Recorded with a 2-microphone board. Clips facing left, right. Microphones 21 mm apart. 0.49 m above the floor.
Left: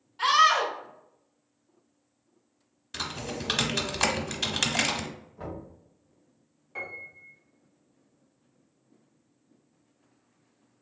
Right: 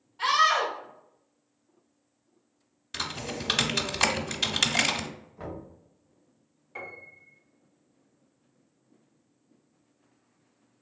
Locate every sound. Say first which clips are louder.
0.2 s a scream: left 2 dB; 40° left (ahead or behind), 1.6 m
2.9 s typing on a keyboard: right 1 dB; 15° right (ahead or behind), 0.6 m
5.4 s knocking: even; 15° right (ahead or behind), 1.8 m
6.8 s a piano: left 3 dB; centre (ahead or behind), 1.5 m